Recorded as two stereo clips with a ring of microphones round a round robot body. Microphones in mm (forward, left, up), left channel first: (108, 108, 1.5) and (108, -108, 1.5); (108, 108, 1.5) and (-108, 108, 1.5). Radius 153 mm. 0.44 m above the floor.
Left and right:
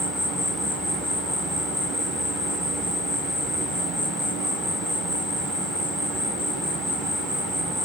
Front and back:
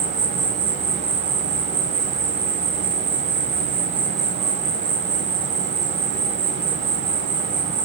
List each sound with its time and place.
0.0 s an insect: straight behind, 2 m